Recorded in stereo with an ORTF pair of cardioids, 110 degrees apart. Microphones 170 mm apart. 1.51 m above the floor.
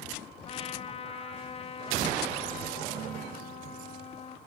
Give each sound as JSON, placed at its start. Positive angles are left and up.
{"t": 0.5, "sound": "a trumpet", "azimuth_deg": 35, "distance_m": 0.9}